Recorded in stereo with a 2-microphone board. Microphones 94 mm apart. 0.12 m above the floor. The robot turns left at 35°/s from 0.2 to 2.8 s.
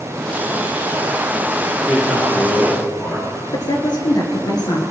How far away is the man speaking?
About 3 m.